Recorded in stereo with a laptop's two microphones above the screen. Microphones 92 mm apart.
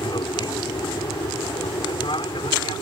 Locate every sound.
0.0 s an aircraft: 55° left (ahead or behind); by 2.8 s 65° left (ahead or behind)